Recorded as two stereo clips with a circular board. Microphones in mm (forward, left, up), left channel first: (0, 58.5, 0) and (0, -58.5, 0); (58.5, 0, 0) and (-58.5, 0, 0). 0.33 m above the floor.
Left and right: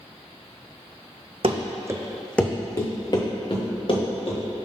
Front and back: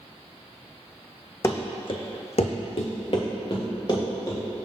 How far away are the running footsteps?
About 0.8 m.